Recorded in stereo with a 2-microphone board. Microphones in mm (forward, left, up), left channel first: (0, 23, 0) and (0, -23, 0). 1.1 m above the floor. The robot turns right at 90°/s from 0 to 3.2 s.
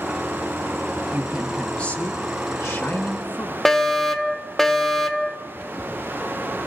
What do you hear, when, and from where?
1.1 s a woman speaking: 35° right, 2 m; by 3.5 s 150° left, 2 m
3.6 s a fire alarm: 5° left (ahead or behind), 1.3 m